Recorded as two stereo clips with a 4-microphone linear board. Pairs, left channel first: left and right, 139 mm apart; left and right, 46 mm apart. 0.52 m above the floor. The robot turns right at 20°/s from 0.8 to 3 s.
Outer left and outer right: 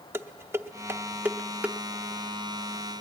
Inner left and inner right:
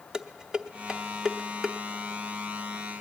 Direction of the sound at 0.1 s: 15° right (ahead or behind).